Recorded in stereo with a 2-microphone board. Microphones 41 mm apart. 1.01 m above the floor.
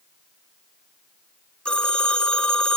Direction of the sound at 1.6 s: 30° left (ahead or behind).